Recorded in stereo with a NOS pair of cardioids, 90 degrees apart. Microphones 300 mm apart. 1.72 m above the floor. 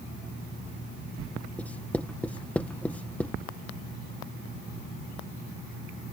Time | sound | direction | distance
1.6 | writing | 5° left | ?